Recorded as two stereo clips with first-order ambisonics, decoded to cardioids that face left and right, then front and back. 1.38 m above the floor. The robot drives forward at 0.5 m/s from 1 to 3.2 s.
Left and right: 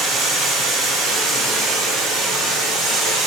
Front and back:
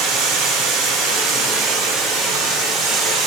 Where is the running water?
170° right, 5 m.